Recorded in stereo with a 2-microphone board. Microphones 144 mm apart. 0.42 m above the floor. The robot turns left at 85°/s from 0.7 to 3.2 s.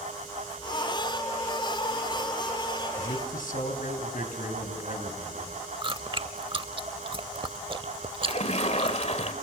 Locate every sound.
3.0 s a man speaking: 60° left (ahead or behind), 3.5 m; by 5.6 s 70° left (ahead or behind), 3.5 m
5.8 s chewing: 35° right (ahead or behind), 0.6 m
8.2 s a splash: 50° left (ahead or behind), 1.9 m